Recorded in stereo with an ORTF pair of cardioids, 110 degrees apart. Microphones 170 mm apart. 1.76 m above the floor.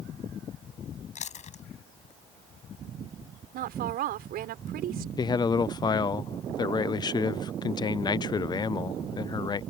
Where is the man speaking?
25° left.